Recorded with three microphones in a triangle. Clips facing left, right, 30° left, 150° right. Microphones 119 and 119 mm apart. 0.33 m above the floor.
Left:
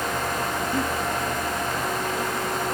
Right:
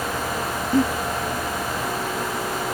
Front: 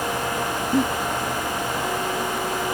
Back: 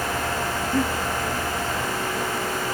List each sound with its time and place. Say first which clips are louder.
0.7 s a giggle: right 9 dB, front 3 dB; 30° right, 3 m